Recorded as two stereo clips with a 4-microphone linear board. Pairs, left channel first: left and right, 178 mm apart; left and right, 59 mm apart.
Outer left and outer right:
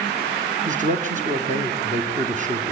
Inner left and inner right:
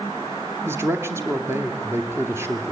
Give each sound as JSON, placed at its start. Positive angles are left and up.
{"t": 0.7, "sound": "a man speaking", "side_deg": -40, "distance_m": 2.5}